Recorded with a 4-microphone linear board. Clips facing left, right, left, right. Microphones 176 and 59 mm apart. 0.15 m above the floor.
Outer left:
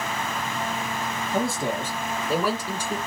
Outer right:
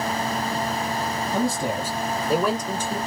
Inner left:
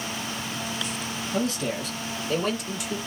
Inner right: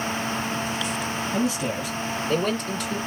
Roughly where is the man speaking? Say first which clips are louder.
Outer right 1 dB, even; centre.